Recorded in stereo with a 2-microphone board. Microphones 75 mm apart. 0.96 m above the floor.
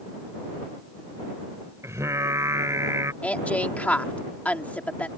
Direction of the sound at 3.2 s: 20° left (ahead or behind).